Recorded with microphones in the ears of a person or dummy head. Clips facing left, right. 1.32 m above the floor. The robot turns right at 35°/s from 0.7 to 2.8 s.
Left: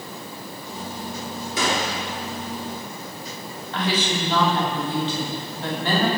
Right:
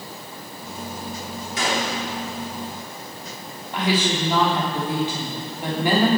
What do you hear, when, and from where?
1.6 s a gunshot: 90° left, 3 m; by 2.0 s 75° left (ahead or behind), 3 m
3.7 s a woman speaking: 10° right (ahead or behind), 3 m